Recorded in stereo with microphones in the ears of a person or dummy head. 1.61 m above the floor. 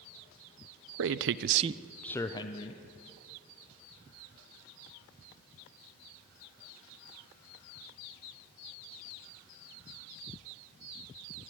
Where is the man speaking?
75° right (ahead or behind), 0.8 m; by 2.8 s 35° left (ahead or behind), 1.2 m.